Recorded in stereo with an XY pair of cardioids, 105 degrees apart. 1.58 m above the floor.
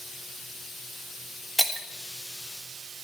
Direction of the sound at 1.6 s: 10° right.